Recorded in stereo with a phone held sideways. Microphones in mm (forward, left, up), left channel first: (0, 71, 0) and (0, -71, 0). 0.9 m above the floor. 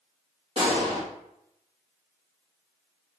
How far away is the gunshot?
About 1.5 m.